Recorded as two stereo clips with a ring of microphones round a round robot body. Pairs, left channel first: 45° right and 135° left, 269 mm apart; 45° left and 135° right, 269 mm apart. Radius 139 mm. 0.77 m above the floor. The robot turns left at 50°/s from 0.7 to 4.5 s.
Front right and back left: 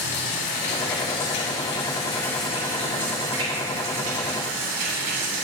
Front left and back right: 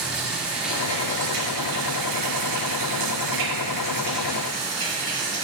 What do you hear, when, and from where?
0.0 s running water: 50° right, 3 m; by 5.5 s 120° left, 3 m